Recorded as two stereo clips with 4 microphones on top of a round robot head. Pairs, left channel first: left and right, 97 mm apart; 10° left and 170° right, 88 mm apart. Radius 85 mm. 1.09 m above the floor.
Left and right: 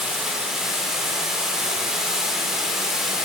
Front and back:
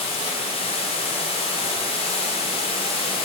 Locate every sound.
0.0 s running water: 5° right, 2 m